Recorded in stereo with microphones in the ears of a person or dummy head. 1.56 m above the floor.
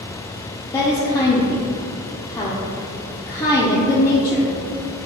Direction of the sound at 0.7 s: 20° left (ahead or behind).